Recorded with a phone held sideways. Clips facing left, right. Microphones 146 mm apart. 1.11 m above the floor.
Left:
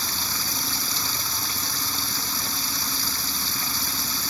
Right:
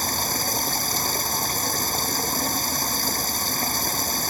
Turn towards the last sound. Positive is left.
turn(degrees=-45)  # may be behind; listen again after turning